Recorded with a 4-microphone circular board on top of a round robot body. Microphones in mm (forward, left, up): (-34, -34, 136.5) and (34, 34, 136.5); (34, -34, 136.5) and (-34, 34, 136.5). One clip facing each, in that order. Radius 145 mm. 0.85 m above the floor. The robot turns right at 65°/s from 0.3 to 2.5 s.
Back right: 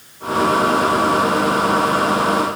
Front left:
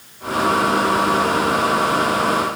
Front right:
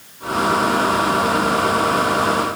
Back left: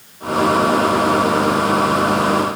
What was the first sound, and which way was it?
Only background noise.